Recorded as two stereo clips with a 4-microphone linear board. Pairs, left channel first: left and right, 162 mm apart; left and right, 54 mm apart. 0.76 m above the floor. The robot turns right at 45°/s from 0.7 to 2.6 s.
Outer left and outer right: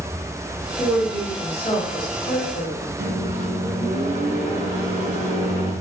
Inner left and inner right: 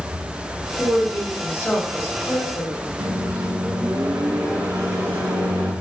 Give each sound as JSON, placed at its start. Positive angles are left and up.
{"t": 0.8, "sound": "a woman speaking", "azimuth_deg": 10, "distance_m": 1.5}
{"t": 3.0, "sound": "a microwave", "side_deg": -80, "distance_m": 1.2}